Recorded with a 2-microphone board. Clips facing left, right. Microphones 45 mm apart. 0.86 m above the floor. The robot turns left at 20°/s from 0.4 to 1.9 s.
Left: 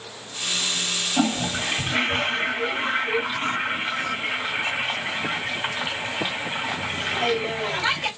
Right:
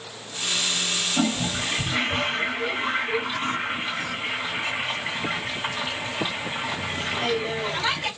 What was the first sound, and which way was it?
A toilet flushing, 45° left (ahead or behind).